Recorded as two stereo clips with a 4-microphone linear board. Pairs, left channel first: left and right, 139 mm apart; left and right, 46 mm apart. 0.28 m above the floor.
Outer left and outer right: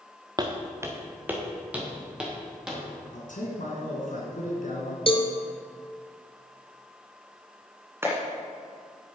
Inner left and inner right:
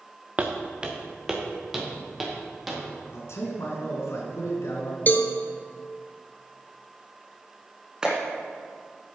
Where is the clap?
15° right (ahead or behind), 2 m.